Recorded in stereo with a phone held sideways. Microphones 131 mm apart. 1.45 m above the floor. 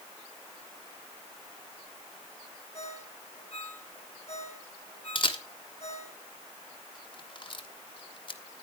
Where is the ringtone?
55° left (ahead or behind), 6 m.